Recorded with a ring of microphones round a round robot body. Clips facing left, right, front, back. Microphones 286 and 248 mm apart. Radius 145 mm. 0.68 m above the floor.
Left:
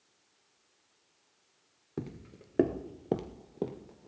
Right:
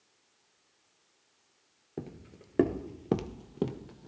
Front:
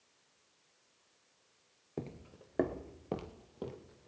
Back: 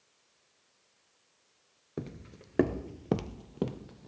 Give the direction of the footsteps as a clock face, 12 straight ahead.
8 o'clock.